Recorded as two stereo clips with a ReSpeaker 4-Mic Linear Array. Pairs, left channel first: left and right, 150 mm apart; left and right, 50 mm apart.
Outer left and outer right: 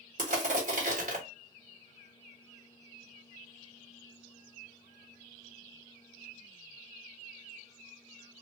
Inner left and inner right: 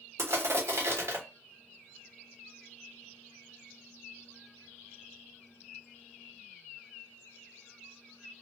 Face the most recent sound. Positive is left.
turn(degrees=-60)  # may be behind; listen again after turning